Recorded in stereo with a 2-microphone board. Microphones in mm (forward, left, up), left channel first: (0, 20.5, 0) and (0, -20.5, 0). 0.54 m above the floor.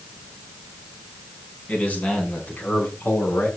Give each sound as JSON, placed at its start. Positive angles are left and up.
{"t": 1.7, "sound": "a man speaking", "side_deg": 35, "distance_m": 4.5}